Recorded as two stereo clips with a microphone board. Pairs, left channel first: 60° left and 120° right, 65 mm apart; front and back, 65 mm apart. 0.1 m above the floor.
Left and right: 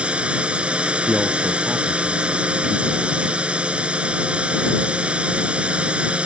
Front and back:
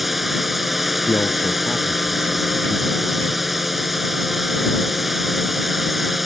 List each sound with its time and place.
0.0 s a drone: 95° right
1.1 s a man speaking: 45° right